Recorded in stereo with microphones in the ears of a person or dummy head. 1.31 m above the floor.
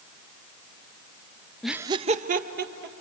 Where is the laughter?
5° left (ahead or behind), 0.6 m; by 3.0 s 55° right (ahead or behind), 2 m.